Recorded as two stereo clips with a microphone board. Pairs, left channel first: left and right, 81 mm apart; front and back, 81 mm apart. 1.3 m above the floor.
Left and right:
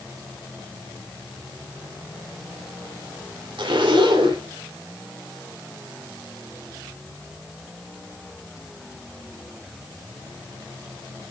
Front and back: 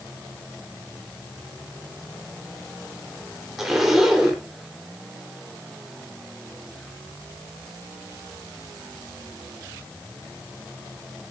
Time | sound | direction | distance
3.6 | a zipper | 95° right | 3.5 m